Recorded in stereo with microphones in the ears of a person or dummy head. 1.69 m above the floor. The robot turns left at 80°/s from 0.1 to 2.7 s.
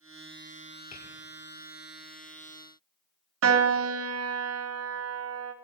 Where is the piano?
80° right, 0.8 m.